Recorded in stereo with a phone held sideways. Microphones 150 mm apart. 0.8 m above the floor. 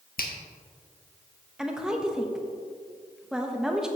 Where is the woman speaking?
5° right (ahead or behind), 0.8 m.